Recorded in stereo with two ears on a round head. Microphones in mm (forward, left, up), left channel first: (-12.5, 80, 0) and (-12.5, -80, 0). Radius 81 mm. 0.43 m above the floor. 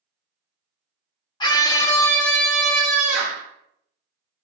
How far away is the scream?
About 0.9 m.